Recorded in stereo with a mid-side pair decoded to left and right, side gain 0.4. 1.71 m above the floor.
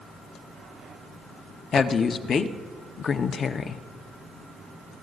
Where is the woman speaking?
50° left, 1.0 m.